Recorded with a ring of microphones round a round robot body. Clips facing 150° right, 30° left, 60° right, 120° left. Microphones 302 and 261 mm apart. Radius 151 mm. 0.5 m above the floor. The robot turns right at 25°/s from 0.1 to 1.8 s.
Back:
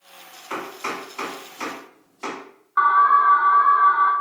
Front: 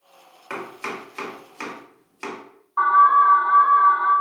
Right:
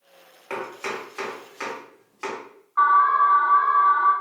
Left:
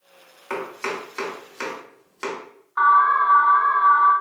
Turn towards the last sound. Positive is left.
turn(degrees=165)